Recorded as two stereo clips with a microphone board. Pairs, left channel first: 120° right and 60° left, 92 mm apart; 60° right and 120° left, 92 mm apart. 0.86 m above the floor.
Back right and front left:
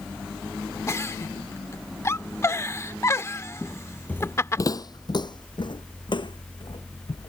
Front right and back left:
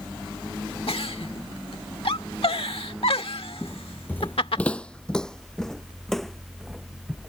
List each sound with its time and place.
0.9 s a giggle: 60° right
3.6 s footsteps: 10° right; by 7.3 s 150° right